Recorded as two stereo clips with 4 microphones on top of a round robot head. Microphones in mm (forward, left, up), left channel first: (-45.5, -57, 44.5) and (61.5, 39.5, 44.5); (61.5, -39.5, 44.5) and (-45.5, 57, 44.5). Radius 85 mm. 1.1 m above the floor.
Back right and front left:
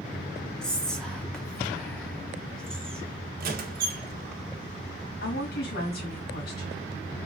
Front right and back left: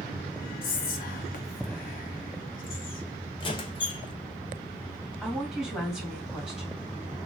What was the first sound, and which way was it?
Whispering, 55° right.